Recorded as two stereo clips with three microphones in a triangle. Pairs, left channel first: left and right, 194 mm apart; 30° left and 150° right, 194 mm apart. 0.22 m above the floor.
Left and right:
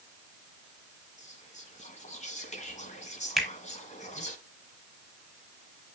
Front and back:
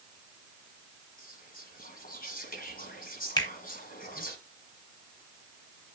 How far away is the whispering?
About 1.5 m.